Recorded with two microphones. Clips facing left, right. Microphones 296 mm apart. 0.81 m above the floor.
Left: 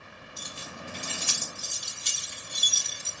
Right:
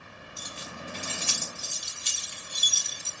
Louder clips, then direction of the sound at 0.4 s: Right 1 dB; 50° left (ahead or behind).